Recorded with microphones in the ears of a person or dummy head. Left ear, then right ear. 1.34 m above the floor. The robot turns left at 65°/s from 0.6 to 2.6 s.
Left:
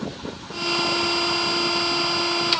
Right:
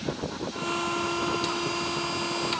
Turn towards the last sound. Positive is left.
No sound to turn to.